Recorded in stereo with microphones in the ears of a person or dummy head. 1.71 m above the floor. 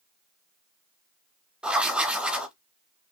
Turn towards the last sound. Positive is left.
turn(degrees=-5)  # may be behind; listen again after turning